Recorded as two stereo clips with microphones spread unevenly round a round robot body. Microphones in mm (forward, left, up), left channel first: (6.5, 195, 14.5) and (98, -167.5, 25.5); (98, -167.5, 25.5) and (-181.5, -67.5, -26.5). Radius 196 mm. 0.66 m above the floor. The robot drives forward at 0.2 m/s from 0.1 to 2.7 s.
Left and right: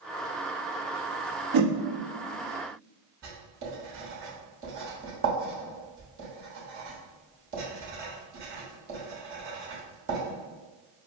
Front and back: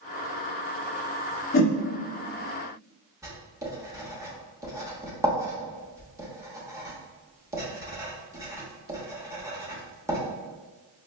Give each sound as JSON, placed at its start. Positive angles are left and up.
{"t": 1.5, "sound": "a whoosh", "azimuth_deg": -70, "distance_m": 0.7}
{"t": 3.2, "sound": "writing", "azimuth_deg": -130, "distance_m": 1.0}